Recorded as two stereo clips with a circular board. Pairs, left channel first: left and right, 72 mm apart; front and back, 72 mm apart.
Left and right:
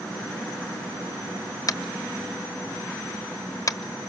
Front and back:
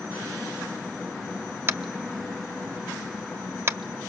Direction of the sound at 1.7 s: 125° left.